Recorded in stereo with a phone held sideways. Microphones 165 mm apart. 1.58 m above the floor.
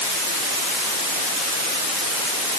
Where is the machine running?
I don't hear a machine running.